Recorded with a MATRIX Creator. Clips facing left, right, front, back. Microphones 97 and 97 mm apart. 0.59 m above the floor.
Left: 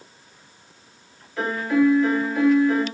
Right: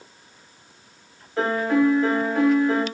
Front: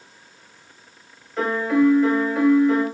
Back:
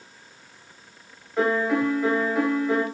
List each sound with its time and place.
1.4 s a piano: 100° right, 1.5 m